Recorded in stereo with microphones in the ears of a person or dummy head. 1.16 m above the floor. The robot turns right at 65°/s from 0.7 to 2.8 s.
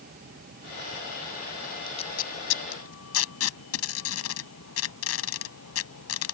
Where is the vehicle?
50° right (ahead or behind); by 6.3 s 75° left (ahead or behind).